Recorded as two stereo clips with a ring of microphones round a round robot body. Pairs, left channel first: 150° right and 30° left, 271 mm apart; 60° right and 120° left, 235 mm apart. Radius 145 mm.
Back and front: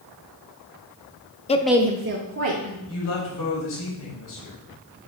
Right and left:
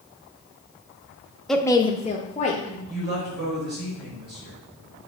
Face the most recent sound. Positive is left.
turn(degrees=170)